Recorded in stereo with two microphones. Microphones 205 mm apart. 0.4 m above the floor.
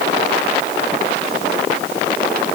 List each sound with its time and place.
Only background noise.